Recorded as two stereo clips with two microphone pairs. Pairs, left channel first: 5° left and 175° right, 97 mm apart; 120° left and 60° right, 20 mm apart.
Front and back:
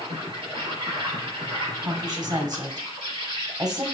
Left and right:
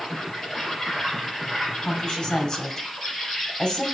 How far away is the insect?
About 3.5 m.